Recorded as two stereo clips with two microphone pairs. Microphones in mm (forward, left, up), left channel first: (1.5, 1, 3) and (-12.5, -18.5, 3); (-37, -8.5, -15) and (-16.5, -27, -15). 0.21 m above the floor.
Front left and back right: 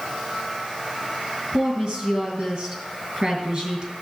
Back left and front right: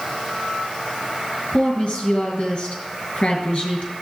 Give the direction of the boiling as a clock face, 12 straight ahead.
I don't hear boiling.